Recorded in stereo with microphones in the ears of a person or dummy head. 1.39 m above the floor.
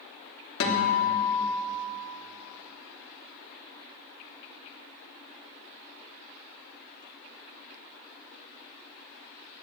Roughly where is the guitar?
Left.